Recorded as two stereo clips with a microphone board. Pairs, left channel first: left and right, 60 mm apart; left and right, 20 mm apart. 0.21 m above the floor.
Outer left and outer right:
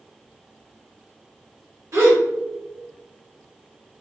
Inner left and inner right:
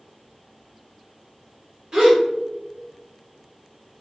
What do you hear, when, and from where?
1.9 s a gasp: 50° right (ahead or behind), 1.8 m